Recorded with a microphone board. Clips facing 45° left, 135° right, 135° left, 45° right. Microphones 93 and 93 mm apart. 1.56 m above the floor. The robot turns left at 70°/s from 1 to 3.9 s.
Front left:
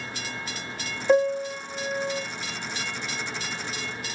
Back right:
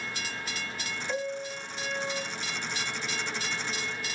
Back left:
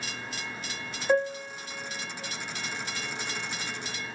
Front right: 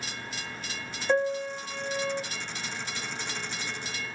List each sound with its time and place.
1.1 s a piano: 45° left, 0.5 m; by 2.2 s 30° right, 0.5 m